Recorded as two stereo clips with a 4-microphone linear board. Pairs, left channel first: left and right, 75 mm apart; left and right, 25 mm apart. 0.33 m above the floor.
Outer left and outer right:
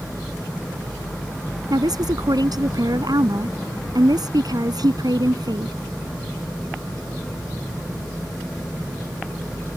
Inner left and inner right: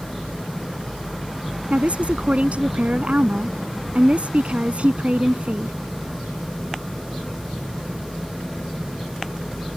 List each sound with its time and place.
1.7 s a woman speaking: 60° right (ahead or behind)